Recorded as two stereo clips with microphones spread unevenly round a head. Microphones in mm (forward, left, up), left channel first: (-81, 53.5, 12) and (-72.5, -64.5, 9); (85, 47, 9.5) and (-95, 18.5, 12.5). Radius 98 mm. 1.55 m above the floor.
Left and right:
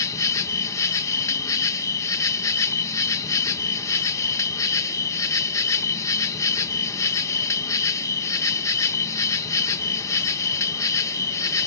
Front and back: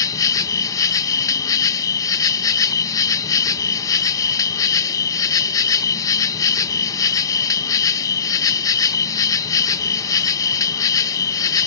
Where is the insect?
60° left.